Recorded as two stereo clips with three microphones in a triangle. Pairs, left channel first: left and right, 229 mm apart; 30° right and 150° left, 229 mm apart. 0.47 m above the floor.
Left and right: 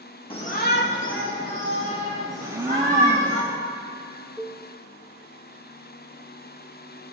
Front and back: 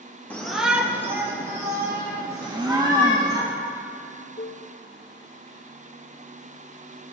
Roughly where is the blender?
Behind right.